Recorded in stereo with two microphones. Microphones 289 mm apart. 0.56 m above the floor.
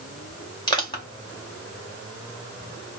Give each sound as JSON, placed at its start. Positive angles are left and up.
{"t": 0.7, "sound": "crushing", "side_deg": 15, "distance_m": 1.5}